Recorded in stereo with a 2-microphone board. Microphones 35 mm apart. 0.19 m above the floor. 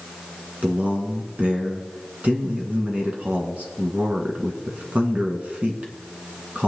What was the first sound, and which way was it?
A man speaking, 40° right (ahead or behind).